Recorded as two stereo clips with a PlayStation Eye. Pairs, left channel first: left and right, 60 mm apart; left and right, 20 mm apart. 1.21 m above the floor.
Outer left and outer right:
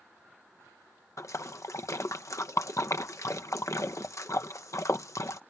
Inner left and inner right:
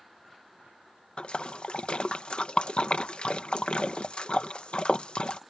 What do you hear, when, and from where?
1.2 s a splash: 60° left (ahead or behind)